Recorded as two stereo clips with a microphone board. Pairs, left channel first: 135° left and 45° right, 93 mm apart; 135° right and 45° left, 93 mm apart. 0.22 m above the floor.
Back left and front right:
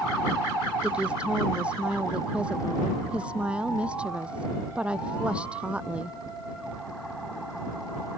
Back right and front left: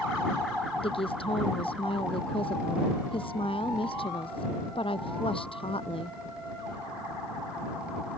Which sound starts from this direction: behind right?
A woman speaking, at 0.8 s.